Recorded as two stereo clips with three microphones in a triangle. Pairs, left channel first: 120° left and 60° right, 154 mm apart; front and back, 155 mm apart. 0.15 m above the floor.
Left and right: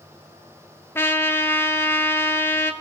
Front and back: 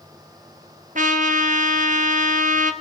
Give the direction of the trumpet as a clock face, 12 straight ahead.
6 o'clock.